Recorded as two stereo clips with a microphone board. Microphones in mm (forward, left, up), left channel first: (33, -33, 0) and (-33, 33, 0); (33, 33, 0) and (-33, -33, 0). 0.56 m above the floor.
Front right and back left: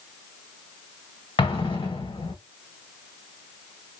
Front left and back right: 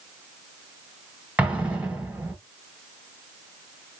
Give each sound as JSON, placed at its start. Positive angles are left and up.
{"t": 1.4, "sound": "an explosion", "azimuth_deg": -60, "distance_m": 1.1}